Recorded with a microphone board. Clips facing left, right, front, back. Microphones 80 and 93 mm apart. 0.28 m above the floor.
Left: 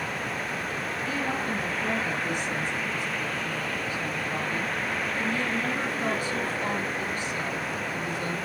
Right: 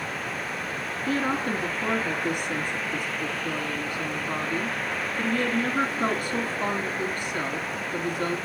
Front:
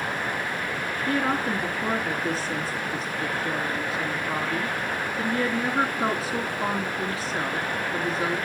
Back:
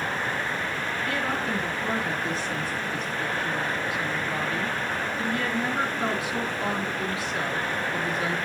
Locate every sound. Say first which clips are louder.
1.1 s a woman speaking: right 5 dB, front 5 dB; 55° right, 3 m